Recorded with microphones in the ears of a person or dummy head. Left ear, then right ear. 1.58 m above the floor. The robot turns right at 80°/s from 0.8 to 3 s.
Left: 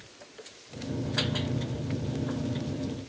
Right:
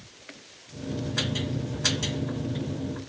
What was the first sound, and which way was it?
Only background noise.